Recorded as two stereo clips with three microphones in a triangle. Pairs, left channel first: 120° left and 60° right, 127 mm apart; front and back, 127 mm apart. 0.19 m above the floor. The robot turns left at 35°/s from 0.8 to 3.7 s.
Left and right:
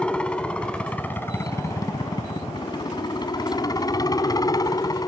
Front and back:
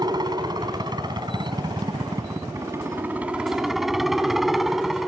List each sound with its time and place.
0.0 s a helicopter: 165° right; by 5.1 s 95° left